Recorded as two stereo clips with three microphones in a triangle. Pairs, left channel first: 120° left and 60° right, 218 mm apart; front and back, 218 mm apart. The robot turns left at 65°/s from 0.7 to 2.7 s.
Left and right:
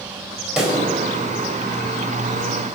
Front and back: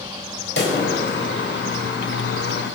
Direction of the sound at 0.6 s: 25° left.